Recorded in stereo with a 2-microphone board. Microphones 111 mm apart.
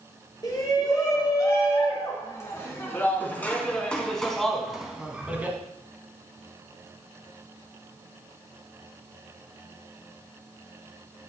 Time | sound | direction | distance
0.4 | a shout | 40° left (ahead or behind) | 5 m